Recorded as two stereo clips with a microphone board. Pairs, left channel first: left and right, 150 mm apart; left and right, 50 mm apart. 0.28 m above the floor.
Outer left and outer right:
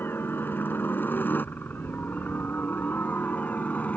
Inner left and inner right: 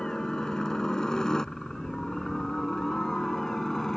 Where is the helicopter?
15° left (ahead or behind); by 4.0 s 10° left (ahead or behind).